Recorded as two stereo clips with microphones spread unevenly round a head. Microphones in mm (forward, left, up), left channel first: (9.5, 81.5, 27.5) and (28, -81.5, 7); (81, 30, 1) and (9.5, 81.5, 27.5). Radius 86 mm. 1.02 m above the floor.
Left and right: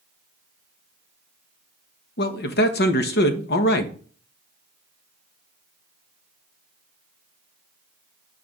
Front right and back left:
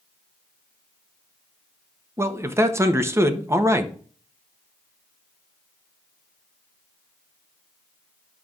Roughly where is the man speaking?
Left.